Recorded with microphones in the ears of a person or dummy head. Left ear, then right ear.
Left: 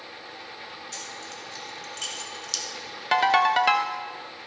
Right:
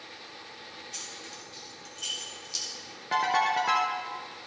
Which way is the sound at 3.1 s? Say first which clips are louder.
Left 5 dB; 25° left (ahead or behind).